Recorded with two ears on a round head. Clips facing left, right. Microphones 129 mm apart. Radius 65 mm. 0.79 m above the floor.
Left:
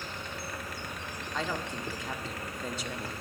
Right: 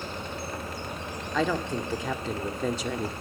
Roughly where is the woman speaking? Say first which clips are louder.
Right 8 dB; right.